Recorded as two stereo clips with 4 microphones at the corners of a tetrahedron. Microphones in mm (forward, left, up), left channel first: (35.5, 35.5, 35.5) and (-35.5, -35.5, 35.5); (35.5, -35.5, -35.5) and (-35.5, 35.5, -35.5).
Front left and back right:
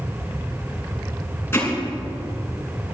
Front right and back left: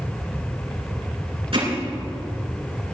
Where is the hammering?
110° left, 7 m.